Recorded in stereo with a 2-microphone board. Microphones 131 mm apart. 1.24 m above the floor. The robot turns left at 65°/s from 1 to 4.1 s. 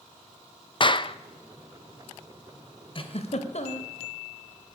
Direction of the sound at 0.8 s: 40° left (ahead or behind).